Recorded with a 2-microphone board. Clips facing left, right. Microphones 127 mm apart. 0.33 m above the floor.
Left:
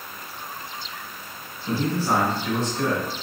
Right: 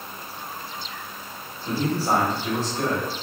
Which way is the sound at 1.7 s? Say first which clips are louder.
Even; 35° right (ahead or behind).